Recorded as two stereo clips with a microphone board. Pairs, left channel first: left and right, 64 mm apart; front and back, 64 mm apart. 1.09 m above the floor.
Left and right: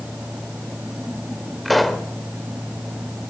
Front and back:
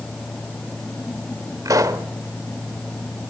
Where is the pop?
Straight behind, 1.3 m.